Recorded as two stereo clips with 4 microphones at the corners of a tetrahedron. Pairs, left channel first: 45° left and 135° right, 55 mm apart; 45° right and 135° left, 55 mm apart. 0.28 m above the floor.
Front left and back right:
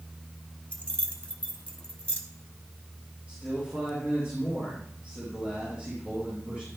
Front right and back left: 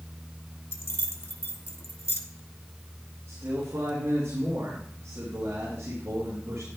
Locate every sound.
0.7 s keys jangling: 15° right, 1.1 m
3.3 s a man speaking: 160° left, 4 m